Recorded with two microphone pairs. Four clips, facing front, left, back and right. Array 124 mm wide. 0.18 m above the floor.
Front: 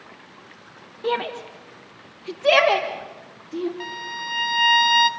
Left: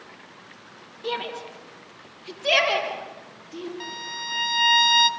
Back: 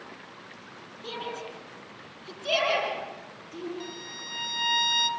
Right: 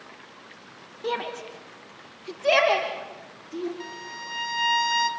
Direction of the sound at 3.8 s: 20° left.